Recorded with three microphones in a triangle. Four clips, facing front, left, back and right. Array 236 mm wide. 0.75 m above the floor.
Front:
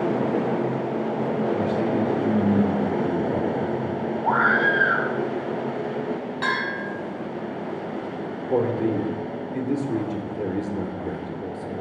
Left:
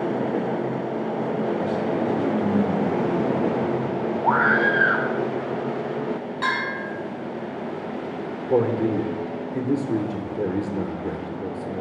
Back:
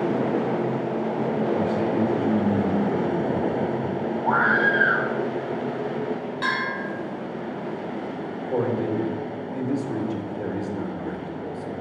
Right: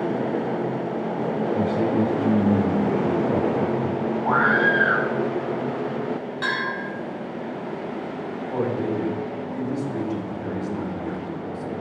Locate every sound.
1.5 s a man speaking: 70° right, 3 m
4.2 s a scream: 80° left, 1.3 m
6.4 s a bell: 10° right, 5.5 m
8.5 s a man speaking: 75° left, 1.8 m